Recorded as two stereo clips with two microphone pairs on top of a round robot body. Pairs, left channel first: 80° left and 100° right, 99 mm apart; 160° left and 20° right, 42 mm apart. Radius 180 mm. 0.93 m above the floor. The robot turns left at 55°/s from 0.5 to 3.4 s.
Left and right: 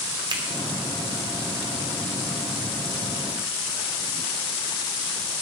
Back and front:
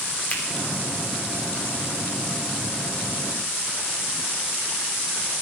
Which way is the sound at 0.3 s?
145° right.